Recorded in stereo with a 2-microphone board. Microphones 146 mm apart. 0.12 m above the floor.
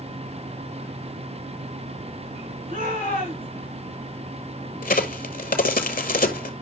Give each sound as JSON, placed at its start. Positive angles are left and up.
{"t": 2.7, "sound": "a shout", "side_deg": -75, "distance_m": 7.5}
{"t": 4.8, "sound": "a crack", "side_deg": 70, "distance_m": 1.1}